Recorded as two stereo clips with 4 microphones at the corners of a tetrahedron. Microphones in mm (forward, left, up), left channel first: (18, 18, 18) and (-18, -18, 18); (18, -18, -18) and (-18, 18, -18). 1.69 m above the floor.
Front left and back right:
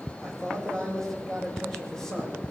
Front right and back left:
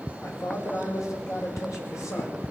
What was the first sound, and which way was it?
A man speaking, 35° right.